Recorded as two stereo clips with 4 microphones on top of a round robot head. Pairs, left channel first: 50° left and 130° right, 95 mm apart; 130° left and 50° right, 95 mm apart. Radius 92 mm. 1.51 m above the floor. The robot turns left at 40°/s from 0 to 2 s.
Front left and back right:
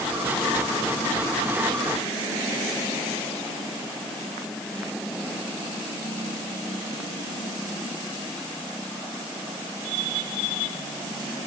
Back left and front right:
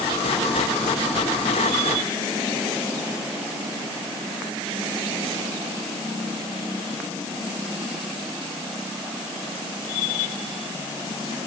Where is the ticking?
I don't hear ticking.